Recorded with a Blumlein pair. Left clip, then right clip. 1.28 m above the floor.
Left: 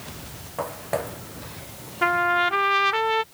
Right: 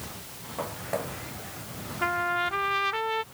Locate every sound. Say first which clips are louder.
0.6 s footsteps: left 4 dB; 15° left
2.0 s a trumpet: left 6 dB; 20° left